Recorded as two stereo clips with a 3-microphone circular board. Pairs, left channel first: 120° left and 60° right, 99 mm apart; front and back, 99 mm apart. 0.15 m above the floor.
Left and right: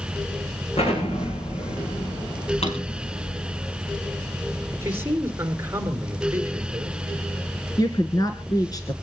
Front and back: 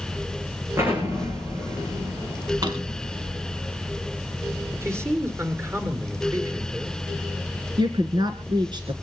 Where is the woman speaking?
155° left, 1.7 m.